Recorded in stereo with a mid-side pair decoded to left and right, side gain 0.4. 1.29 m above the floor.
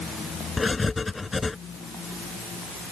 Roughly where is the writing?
Ahead left.